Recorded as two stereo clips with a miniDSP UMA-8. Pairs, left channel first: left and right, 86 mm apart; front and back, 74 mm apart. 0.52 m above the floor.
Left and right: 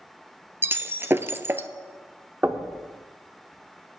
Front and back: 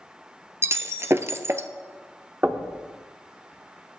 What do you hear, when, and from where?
0.6 s breaking glass: 145° right, 0.7 m
2.4 s knocking: 140° right, 1.0 m